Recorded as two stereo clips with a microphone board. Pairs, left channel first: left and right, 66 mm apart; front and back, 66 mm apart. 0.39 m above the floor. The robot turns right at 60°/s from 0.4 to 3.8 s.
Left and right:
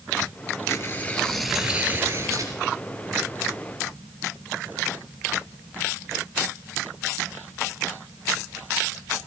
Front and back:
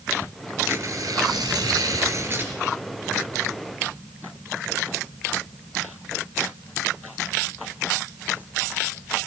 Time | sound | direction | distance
0.7 | tearing paper | 130° left | 3 m